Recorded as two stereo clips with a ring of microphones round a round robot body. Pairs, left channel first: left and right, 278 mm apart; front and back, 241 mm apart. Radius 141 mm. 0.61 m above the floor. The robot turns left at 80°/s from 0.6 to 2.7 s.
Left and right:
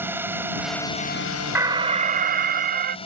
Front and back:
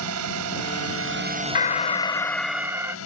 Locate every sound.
0.0 s a drone: 170° right; by 3.1 s 20° left
1.6 s an alarm: 15° right; by 3.0 s 105° right